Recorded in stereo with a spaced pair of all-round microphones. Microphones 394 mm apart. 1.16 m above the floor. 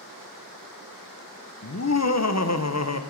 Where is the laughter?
45° left (ahead or behind), 0.7 m.